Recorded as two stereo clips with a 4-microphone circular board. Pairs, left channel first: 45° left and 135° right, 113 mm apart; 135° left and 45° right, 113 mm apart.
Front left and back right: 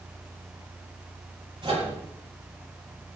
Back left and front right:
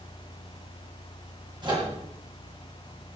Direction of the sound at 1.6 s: 95° right.